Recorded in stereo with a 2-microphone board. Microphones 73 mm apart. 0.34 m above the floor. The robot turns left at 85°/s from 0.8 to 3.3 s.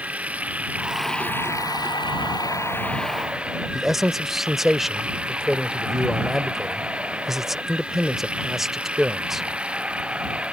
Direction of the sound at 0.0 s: 160° right.